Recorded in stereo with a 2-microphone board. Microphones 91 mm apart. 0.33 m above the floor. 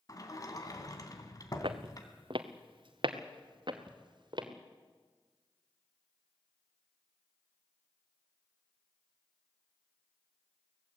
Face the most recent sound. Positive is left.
turn(degrees=-55)  # may be behind; listen again after turning